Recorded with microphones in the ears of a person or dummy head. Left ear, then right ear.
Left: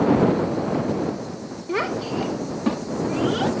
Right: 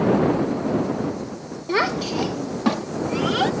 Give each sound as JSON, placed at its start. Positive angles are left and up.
{"t": 1.7, "sound": "a child speaking", "side_deg": -25}